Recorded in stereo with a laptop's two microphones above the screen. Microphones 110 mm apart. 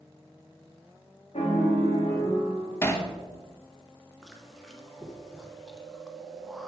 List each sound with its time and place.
1.3 s a piano: 75° left (ahead or behind), 2.0 m
2.8 s hammering: 25° left (ahead or behind), 0.8 m
4.2 s chewing: centre (ahead or behind), 0.8 m